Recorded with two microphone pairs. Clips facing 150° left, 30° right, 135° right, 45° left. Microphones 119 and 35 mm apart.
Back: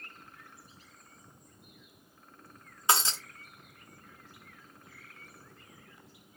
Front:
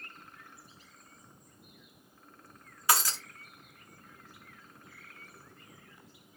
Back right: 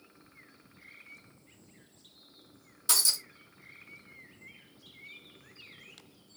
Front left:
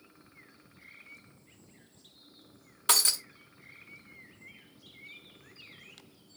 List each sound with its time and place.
2.9 s breaking glass: 85° left, 0.8 m